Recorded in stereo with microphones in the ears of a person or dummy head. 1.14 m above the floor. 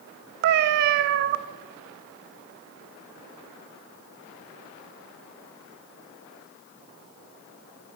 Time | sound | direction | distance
0.4 | a cat meowing | 50° right (ahead or behind) | 0.6 m